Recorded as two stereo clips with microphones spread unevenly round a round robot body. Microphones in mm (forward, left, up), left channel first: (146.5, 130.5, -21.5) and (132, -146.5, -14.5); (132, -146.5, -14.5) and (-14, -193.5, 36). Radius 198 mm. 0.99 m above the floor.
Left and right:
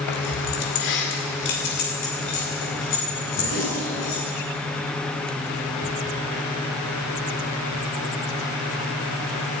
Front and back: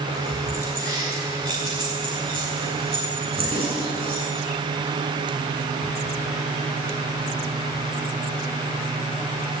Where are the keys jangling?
85° left, 1.6 m; by 4.2 s 145° left, 4.5 m.